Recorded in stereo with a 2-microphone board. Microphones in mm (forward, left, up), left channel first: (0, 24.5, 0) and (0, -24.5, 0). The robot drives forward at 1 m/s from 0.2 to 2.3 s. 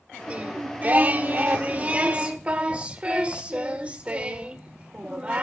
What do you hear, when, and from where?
0.3 s singing: 30° right (ahead or behind), 1.6 m; by 5.4 s 25° right (ahead or behind), 1.8 m